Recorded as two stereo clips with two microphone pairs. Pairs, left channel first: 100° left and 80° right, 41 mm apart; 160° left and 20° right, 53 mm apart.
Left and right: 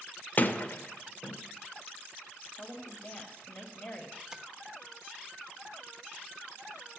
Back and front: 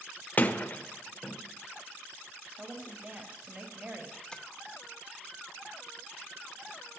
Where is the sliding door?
120° left, 1.1 m.